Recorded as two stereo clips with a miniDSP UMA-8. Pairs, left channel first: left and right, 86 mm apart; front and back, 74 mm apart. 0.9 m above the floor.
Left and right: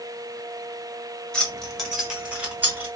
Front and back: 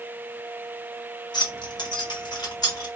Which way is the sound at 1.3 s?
10° left.